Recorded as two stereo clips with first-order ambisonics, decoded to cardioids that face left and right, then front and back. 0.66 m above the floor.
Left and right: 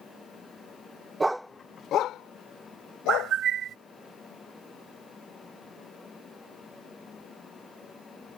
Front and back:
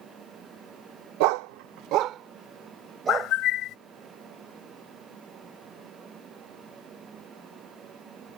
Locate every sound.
1.2 s a dog barking: 170° right; by 3.4 s 110° left
3.1 s a bird: 35° right